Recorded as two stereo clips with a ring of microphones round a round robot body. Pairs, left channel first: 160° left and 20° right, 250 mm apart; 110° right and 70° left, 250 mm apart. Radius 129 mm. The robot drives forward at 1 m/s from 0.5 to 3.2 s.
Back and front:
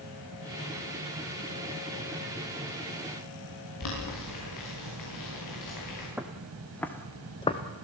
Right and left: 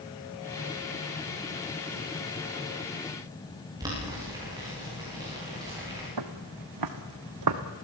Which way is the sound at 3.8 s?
145° left.